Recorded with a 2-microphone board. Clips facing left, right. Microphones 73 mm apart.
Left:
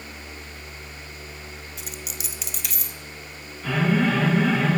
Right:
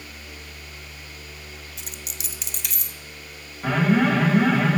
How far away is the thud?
No thud in this recording.